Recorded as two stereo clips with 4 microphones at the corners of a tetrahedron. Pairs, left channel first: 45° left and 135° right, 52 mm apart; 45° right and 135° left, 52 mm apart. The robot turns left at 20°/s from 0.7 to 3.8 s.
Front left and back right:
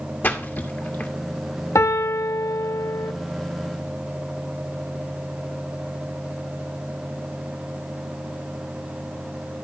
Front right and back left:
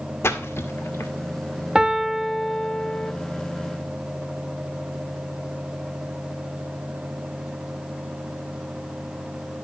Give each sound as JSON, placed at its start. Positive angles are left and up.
{"t": 0.2, "sound": "a splash", "azimuth_deg": -5, "distance_m": 1.7}
{"t": 1.8, "sound": "a piano", "azimuth_deg": 60, "distance_m": 0.8}